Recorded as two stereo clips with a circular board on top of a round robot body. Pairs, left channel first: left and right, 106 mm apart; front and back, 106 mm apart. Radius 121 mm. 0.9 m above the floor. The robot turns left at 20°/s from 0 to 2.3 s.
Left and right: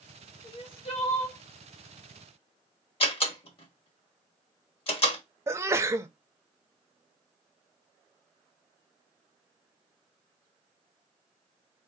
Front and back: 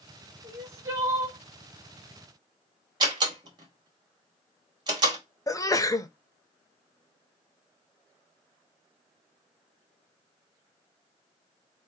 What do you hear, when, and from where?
0.4 s crying: 125° left, 1.7 m; by 1.4 s 105° left, 1.7 m
3.0 s a door slam: 130° left, 1.8 m
5.5 s a sneeze: 40° right, 0.9 m